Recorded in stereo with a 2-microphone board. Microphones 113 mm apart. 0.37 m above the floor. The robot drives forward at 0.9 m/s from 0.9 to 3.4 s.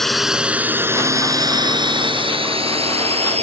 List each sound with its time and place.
0.0 s a drone: centre (ahead or behind); by 3.4 s 65° right (ahead or behind)